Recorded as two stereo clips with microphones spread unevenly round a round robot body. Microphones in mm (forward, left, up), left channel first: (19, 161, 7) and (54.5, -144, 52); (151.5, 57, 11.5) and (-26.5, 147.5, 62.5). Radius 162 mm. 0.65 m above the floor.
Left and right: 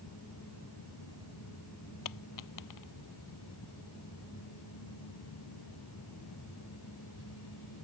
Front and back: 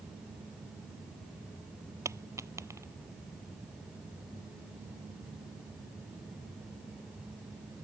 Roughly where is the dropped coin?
Left.